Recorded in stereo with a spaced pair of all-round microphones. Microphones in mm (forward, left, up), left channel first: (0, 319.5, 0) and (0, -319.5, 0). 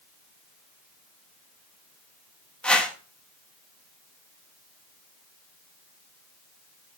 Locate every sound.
2.6 s a whoosh: centre (ahead or behind), 1.2 m